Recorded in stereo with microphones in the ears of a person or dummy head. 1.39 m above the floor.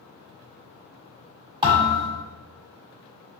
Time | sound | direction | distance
1.6 | a thud | 25° right (ahead or behind) | 1.4 m